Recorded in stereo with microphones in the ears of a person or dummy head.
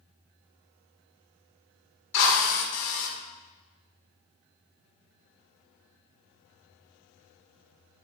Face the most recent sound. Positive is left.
turn(degrees=65)  # may be behind; listen again after turning